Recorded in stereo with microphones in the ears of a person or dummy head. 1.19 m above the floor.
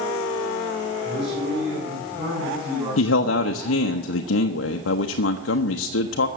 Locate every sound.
1.0 s a man speaking: 30° right (ahead or behind), 9.5 m; by 4.0 s 20° right (ahead or behind), 13 m
3.0 s a man speaking: 85° left, 0.9 m